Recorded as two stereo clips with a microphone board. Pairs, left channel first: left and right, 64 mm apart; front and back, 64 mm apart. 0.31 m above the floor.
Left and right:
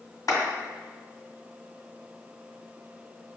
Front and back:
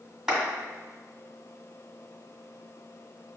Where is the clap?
100° left, 1.6 m.